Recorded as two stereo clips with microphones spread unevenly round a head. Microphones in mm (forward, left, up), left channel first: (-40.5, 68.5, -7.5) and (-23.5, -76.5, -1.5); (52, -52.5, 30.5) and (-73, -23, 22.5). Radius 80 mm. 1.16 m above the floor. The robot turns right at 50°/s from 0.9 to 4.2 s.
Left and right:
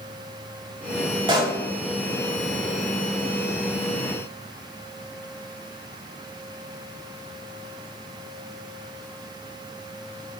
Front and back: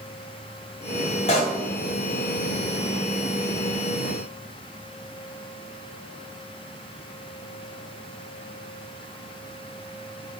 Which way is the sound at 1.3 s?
30° right.